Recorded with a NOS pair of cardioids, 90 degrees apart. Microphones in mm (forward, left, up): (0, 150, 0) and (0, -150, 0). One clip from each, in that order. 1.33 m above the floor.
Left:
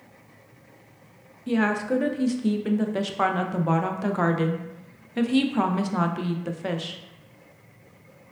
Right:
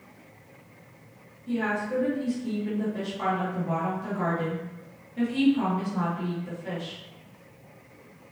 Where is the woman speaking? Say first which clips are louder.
Left 4 dB; 70° left, 0.6 m.